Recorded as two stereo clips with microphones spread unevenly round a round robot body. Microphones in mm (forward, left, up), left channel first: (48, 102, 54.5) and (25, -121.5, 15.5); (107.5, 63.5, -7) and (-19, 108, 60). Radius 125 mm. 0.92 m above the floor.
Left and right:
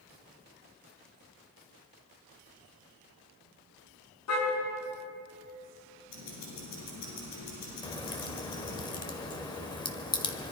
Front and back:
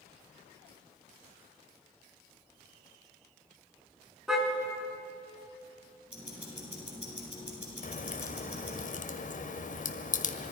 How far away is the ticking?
About 8 m.